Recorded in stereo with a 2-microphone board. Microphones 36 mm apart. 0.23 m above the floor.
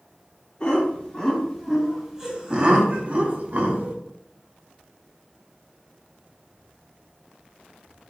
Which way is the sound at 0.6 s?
25° left (ahead or behind).